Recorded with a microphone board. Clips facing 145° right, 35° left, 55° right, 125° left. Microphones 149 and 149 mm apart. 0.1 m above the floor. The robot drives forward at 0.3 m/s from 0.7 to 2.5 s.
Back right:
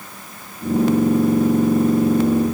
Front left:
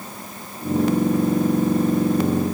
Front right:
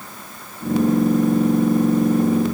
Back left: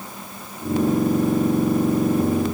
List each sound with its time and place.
Only background noise.